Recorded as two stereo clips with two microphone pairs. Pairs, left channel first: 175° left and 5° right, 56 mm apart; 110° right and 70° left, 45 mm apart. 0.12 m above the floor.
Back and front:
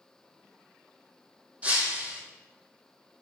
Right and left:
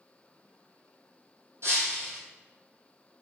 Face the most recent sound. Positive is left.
turn(degrees=60)